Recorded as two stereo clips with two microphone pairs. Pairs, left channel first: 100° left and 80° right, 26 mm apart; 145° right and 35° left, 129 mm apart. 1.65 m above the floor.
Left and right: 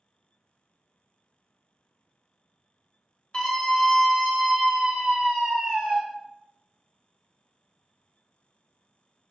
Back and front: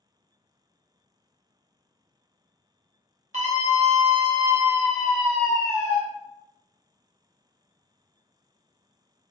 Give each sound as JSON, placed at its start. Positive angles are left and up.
{"t": 3.3, "sound": "a scream", "azimuth_deg": 40, "distance_m": 1.1}